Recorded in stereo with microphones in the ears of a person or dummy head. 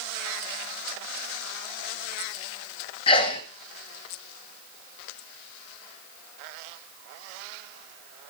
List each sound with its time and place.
3.1 s a sneeze: 30° left (ahead or behind), 0.8 m